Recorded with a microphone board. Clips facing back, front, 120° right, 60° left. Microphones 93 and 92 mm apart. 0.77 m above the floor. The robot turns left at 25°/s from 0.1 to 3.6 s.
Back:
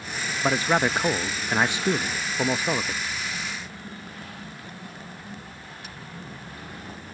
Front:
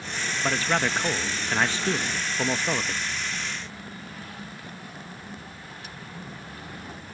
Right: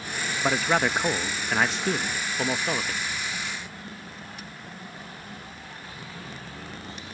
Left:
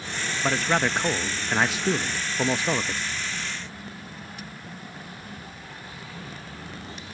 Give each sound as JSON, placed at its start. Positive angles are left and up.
{"t": 0.4, "sound": "a man speaking", "azimuth_deg": 175}